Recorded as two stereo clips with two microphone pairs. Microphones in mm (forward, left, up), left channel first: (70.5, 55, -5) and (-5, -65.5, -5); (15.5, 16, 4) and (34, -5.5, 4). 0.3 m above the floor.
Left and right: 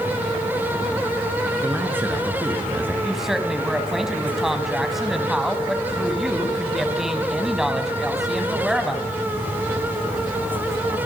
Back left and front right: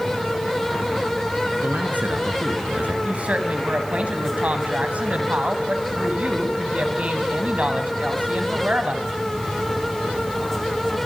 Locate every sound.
1.6 s a man speaking: 45° right, 3.5 m
3.0 s a woman speaking: 35° right, 2.5 m